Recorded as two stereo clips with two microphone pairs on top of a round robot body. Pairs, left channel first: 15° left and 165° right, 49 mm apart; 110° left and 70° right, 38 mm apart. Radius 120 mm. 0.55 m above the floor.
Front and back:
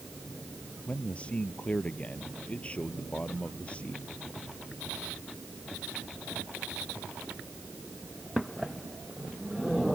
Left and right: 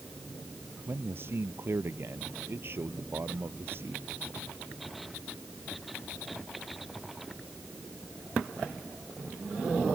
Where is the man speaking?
50° right.